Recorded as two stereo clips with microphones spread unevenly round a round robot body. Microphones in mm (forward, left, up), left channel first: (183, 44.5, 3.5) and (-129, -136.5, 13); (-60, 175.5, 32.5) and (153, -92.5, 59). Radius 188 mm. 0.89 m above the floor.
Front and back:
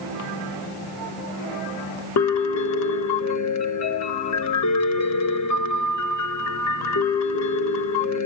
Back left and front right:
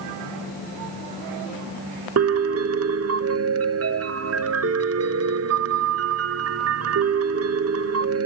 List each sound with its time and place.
2.2 s a piano: 5° right, 0.8 m